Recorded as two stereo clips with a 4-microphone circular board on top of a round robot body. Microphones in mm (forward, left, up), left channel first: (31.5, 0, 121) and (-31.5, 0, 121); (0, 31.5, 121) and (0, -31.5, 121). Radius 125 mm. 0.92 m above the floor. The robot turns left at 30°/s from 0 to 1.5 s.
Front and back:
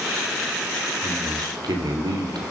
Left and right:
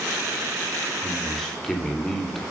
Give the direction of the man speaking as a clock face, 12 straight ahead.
6 o'clock.